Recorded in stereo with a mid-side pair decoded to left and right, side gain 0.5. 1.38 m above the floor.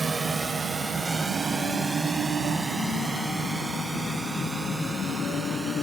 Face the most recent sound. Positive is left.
turn(degrees=-20)